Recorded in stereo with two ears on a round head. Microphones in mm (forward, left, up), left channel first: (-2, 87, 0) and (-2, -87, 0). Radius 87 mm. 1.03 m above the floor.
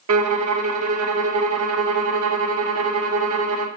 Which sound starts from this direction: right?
A violin, at 0.1 s.